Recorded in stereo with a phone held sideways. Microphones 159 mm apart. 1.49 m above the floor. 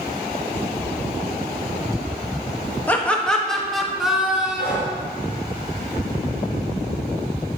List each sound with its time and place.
2.9 s laughter: 10° left (ahead or behind), 1.7 m; by 5.0 s 5° right (ahead or behind), 3 m
4.6 s breathing: 75° left (ahead or behind), 3.5 m